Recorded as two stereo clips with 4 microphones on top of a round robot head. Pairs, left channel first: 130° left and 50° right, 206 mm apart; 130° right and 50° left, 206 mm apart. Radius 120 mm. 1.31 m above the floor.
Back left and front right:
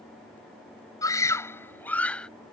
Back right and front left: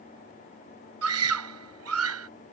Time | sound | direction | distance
1.0 | a scream | 55° left | ?